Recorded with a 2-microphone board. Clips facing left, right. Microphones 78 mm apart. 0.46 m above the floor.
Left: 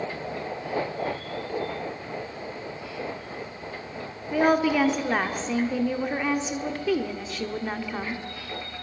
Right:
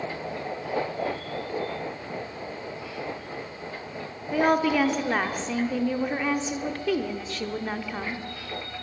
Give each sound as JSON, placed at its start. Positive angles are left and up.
{"t": 4.3, "sound": "a woman speaking", "side_deg": 5, "distance_m": 0.7}